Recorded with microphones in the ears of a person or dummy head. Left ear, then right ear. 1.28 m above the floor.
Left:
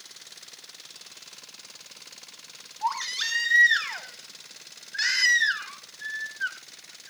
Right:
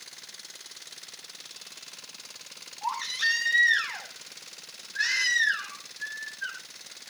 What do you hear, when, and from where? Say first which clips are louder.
2.8 s a baby crying: even; 55° left (ahead or behind), 5 m